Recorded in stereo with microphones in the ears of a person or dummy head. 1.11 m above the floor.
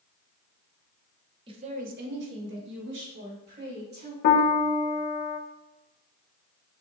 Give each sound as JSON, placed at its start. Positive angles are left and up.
{"t": 1.5, "sound": "a woman speaking", "side_deg": -25, "distance_m": 0.7}
{"t": 4.2, "sound": "a piano", "side_deg": 50, "distance_m": 0.5}